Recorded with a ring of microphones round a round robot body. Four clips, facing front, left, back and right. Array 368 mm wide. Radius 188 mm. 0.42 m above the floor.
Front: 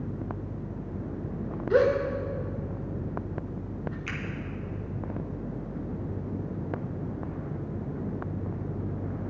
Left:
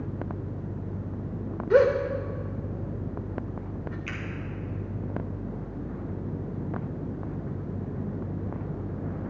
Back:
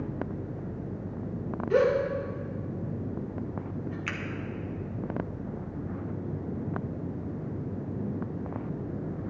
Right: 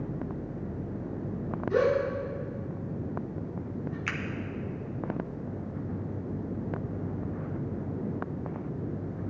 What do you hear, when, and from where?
1.7 s a gasp: 80° left, 1.1 m
4.1 s a finger snap: 115° right, 1.1 m